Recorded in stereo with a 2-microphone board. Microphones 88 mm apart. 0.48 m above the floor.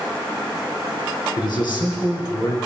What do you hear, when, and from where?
1.4 s a man speaking: 60° left (ahead or behind), 8.5 m